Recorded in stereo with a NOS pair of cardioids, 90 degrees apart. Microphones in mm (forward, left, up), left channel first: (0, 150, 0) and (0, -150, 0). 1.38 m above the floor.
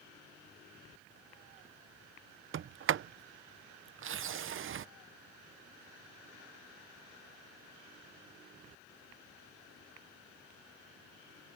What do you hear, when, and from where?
2.5 s a sliding door: 45° right